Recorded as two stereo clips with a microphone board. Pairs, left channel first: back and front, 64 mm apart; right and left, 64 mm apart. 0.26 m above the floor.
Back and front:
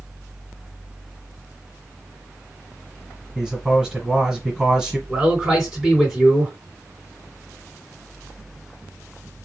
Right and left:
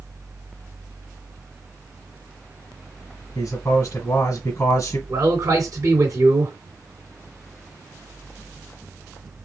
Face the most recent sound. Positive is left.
turn(degrees=85)